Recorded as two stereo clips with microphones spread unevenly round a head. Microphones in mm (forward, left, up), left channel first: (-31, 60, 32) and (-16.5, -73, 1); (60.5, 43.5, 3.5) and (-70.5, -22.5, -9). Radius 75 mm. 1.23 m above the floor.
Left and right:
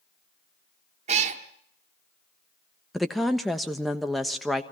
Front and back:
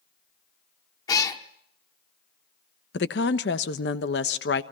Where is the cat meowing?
30° right, 1.1 m.